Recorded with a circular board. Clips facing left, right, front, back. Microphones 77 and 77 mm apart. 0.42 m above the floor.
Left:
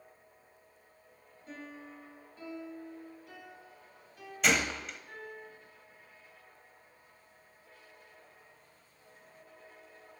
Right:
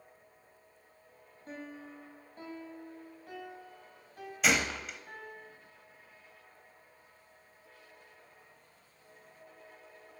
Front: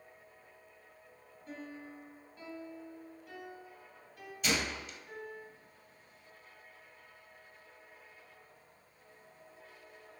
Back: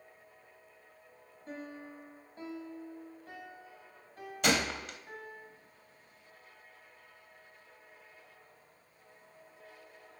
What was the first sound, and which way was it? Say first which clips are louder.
A piano: right 2 dB, back 2 dB; 130° right.